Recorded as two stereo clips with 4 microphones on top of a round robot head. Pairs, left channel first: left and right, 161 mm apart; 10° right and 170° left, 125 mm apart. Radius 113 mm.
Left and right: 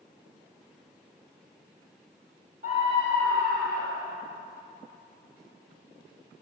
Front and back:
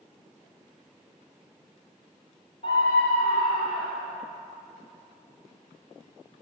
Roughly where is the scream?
Ahead right.